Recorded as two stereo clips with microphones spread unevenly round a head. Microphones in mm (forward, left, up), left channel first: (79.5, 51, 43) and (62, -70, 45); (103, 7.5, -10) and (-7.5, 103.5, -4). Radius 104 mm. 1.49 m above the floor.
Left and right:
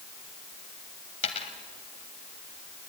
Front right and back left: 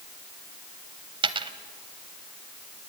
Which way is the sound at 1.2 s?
110° left.